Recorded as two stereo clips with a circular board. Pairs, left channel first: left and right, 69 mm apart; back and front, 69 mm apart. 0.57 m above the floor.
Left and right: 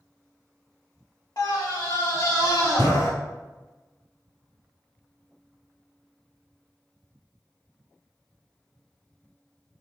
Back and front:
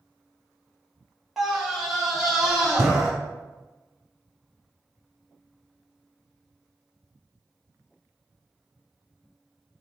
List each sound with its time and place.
1.4 s a scream: 85° left, 2 m; by 3.1 s 80° left, 4.5 m